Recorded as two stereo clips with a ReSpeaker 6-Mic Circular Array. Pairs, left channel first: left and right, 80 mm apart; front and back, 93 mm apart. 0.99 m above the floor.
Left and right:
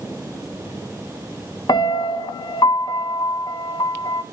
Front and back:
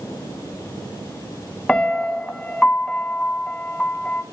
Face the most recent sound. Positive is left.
turn(degrees=85)